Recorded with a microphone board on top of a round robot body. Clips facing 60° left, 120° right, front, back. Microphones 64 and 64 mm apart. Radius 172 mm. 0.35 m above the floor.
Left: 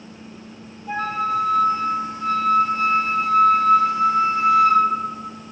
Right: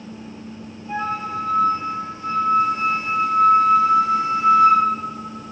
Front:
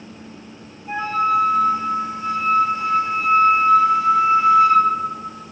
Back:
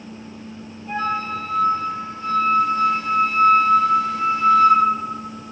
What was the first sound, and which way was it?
A flute, 75° left.